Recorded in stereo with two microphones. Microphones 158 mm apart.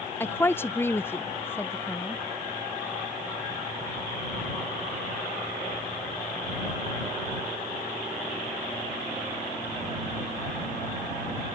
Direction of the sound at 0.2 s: 15° left (ahead or behind).